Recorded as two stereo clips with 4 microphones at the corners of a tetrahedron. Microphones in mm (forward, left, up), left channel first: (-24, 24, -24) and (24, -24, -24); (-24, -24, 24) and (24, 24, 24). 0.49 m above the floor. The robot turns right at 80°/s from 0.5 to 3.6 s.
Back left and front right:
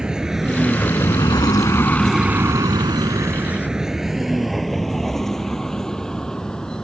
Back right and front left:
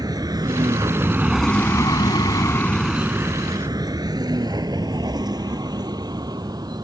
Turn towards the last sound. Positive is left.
turn(degrees=55)